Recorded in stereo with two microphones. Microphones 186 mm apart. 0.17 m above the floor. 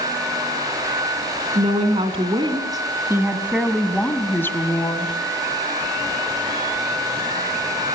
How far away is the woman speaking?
About 2 m.